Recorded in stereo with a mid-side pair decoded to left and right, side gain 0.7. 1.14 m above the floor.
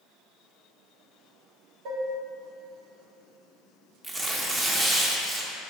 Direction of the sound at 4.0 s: 25° right.